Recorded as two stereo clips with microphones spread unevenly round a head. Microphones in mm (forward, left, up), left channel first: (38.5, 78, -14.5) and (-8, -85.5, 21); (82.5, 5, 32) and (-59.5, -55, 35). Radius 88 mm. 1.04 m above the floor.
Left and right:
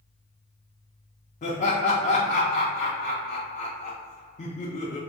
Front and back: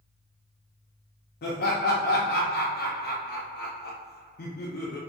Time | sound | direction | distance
1.4 | laughter | 35° left | 0.5 m